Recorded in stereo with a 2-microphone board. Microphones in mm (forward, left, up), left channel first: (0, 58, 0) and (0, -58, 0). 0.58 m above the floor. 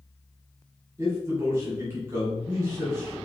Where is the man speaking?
25° right (ahead or behind), 1.8 m.